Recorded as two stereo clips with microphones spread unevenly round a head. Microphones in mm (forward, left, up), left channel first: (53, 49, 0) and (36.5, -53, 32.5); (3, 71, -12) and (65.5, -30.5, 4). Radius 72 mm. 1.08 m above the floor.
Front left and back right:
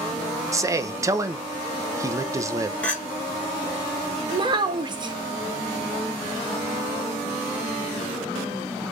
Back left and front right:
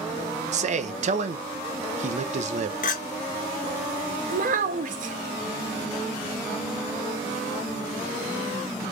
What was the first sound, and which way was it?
A man speaking, 30° right.